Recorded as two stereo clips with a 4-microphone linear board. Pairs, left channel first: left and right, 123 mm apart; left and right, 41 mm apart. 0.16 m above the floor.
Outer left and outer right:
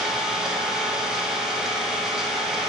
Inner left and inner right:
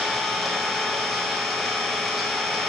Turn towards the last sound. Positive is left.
turn(degrees=-5)  # may be behind; listen again after turning